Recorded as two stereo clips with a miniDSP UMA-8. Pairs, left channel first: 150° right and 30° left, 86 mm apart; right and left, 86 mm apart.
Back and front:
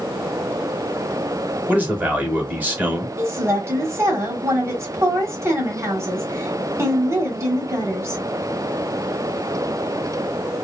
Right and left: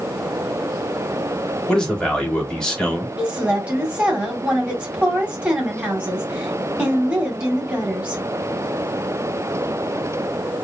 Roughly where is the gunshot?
No gunshot in this recording.